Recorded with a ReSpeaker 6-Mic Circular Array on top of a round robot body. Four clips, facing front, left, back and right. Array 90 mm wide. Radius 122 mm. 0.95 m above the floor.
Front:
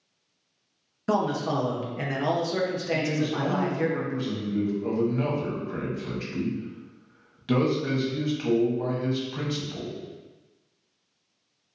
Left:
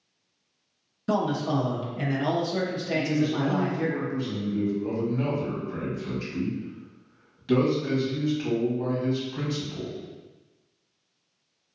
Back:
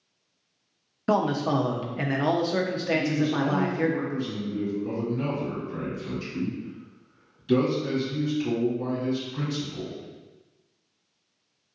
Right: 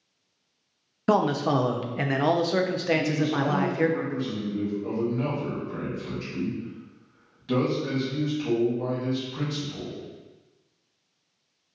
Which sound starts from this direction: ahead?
A man speaking, at 2.9 s.